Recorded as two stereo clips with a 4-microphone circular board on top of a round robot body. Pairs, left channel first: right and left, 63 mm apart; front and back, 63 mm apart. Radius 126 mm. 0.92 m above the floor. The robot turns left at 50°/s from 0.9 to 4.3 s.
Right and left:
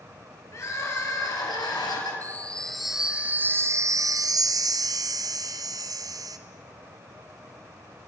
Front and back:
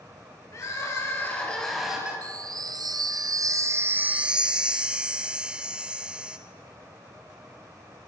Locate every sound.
0.5 s crying: 45° right, 4 m; by 2.1 s 105° right, 4 m
2.2 s a chime: 150° right, 1.3 m; by 6.4 s 105° left, 1.3 m